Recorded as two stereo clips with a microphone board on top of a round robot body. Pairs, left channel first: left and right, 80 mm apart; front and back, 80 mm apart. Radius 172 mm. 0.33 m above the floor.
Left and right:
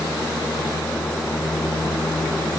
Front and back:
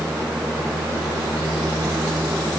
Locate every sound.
Only background noise.